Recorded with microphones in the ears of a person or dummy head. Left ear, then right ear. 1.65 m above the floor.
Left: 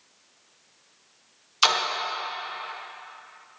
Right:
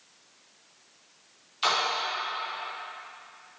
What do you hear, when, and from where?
1.6 s a splash: 55° left (ahead or behind), 1.3 m